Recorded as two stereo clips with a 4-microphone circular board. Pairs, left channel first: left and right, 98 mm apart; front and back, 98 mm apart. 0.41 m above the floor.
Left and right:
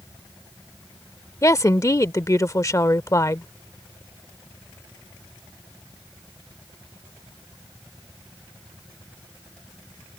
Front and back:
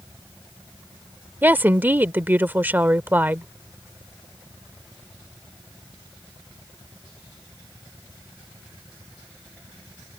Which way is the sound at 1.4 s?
120° left.